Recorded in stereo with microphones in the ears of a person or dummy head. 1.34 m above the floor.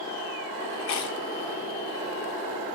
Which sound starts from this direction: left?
Chewing, at 0.8 s.